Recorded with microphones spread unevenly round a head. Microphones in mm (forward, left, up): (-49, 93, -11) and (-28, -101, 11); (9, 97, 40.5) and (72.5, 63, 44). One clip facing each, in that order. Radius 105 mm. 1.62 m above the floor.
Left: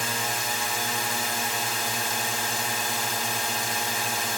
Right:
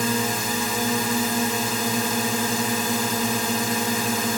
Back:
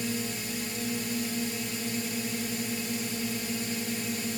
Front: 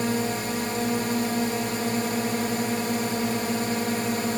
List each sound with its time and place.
0.0 s a drone: 90° right